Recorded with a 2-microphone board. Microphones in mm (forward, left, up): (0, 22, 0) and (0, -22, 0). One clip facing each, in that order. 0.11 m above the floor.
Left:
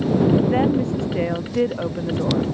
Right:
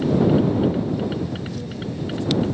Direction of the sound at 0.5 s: 75° left (ahead or behind).